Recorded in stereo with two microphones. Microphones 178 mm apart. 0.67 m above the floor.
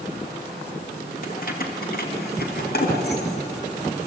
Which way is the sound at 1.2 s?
55° left (ahead or behind).